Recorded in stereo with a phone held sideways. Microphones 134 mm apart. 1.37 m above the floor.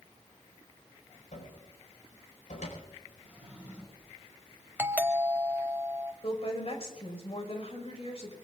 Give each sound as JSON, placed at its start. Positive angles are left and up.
{"t": 1.3, "sound": "a cupboard door", "side_deg": 85, "distance_m": 5.0}
{"t": 3.2, "sound": "a drawer", "side_deg": -10, "distance_m": 7.5}
{"t": 4.8, "sound": "a doorbell", "side_deg": -15, "distance_m": 0.9}
{"t": 6.2, "sound": "a woman speaking", "side_deg": 50, "distance_m": 5.0}